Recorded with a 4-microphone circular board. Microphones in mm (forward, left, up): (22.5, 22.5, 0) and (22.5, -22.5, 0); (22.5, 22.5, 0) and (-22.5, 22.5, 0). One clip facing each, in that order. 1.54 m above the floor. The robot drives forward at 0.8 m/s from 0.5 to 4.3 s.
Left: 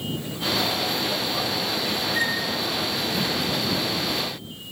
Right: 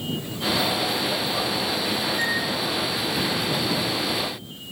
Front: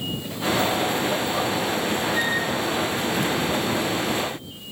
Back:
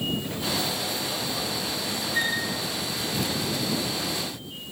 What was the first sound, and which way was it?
A flute, 100° left.